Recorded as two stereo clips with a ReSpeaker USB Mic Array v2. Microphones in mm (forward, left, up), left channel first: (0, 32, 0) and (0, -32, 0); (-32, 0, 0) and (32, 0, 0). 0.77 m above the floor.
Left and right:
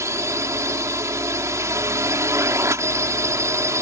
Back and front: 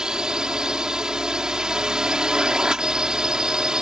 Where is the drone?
75° right.